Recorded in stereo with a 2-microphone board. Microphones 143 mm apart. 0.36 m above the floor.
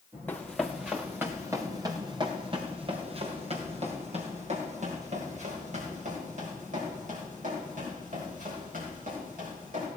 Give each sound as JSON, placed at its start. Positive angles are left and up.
{"t": 0.3, "sound": "running footsteps", "side_deg": 10, "distance_m": 1.6}